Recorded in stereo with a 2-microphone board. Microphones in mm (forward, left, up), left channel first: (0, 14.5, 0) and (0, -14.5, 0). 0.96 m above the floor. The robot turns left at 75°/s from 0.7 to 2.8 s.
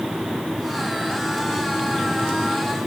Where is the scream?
I don't hear a scream.